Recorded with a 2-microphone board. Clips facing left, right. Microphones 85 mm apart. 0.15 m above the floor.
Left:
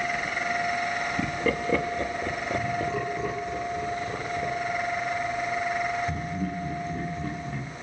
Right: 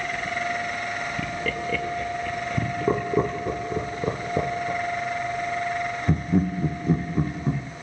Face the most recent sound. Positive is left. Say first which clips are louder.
# right 6 dB
turn(degrees=-55)  # may be behind; listen again after turning